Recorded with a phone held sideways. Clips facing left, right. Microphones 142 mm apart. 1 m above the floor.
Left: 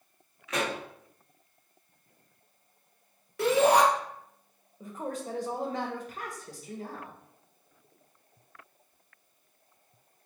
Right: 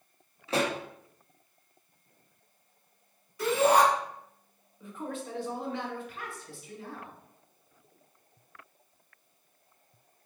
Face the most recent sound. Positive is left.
turn(degrees=40)  # may be behind; listen again after turning